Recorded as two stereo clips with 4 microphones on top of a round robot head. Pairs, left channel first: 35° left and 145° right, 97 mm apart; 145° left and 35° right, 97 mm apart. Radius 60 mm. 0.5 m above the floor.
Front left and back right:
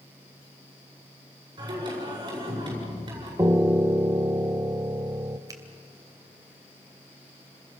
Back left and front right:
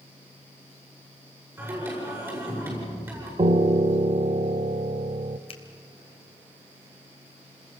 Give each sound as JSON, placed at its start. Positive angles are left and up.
{"t": 1.6, "sound": "singing", "azimuth_deg": -100, "distance_m": 8.0}
{"t": 3.4, "sound": "a piano", "azimuth_deg": -80, "distance_m": 0.7}
{"t": 5.5, "sound": "a finger snap", "azimuth_deg": 160, "distance_m": 2.5}